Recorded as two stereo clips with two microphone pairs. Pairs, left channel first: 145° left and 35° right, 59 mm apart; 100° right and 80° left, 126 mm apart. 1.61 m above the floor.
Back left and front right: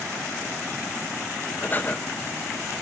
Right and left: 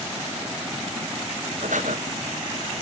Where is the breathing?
80° left, 1.2 m.